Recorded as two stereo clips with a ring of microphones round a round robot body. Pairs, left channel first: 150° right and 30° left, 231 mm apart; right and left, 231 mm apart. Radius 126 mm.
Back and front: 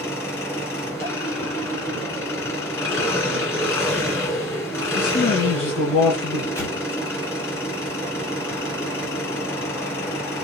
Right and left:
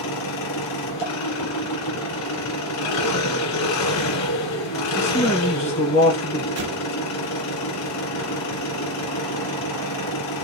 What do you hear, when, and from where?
0.0 s an engine running: 70° right, 2 m
5.0 s a man speaking: 150° right, 1.6 m
6.6 s an explosion: 130° left, 1.1 m